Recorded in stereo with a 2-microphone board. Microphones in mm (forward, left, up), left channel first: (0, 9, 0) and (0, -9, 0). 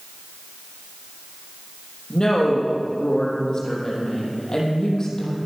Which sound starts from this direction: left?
A woman speaking, at 2.1 s.